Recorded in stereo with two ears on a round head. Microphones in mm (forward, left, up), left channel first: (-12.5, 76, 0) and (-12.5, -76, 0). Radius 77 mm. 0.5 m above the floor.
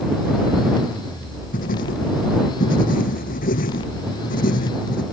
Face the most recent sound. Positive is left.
turn(degrees=55)  # may be behind; listen again after turning